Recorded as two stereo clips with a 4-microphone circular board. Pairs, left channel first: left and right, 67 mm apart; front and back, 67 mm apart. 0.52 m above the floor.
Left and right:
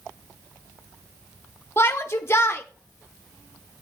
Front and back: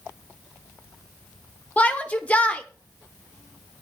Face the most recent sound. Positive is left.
turn(degrees=60)